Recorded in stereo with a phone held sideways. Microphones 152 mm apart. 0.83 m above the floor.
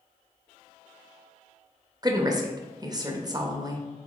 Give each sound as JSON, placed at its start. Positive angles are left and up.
{"t": 2.0, "sound": "a woman speaking", "side_deg": -25, "distance_m": 0.7}